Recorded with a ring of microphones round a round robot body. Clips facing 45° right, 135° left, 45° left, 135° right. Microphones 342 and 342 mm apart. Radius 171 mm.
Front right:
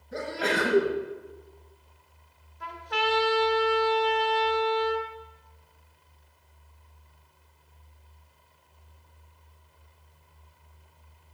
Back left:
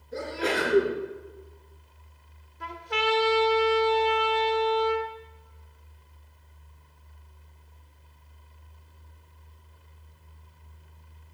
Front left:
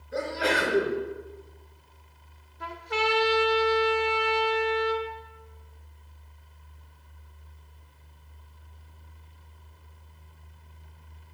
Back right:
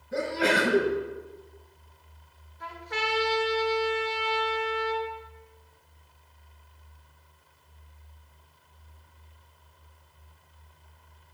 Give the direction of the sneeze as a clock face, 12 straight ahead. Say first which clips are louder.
Back left 1 dB, back right 2 dB; 3 o'clock.